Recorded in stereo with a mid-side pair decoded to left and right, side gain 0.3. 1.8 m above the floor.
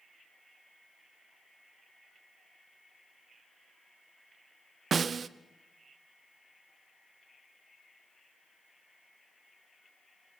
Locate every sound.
4.9 s a snare drum: 55° right, 0.9 m